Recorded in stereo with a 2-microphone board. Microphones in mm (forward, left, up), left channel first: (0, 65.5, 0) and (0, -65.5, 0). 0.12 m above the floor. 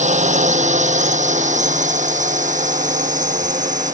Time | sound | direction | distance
0.0 | a drone | 65° right (ahead or behind) | ?